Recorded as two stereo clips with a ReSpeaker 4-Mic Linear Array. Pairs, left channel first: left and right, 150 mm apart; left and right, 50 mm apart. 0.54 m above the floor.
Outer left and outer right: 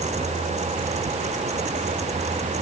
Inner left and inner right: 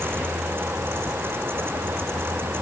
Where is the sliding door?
I don't hear a sliding door.